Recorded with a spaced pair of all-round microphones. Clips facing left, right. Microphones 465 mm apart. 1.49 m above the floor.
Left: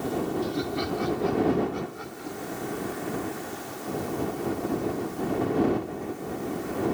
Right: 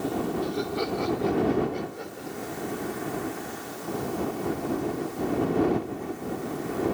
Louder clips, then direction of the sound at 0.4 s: Even; 45° left (ahead or behind).